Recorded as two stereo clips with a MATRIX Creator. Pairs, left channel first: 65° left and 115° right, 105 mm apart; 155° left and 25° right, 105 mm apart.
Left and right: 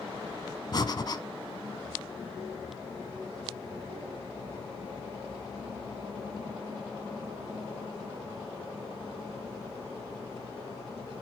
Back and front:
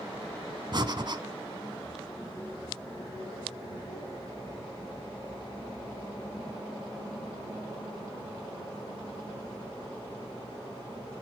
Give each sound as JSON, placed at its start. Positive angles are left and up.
{"t": 0.7, "sound": "breathing", "azimuth_deg": 20, "distance_m": 1.2}